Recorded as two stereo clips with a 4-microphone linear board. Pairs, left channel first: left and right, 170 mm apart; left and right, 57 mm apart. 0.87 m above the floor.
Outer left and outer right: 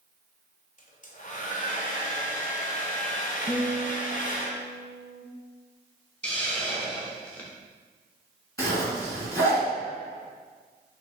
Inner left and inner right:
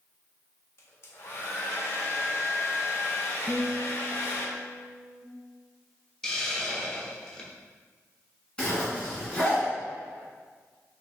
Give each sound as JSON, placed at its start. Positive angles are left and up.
{"t": 0.8, "sound": "a hair dryer", "side_deg": 50, "distance_m": 0.8}
{"t": 3.5, "sound": "a guitar", "side_deg": -35, "distance_m": 0.9}
{"t": 6.2, "sound": "a hiss", "side_deg": 5, "distance_m": 0.8}
{"t": 8.6, "sound": "a zipper", "side_deg": 15, "distance_m": 1.7}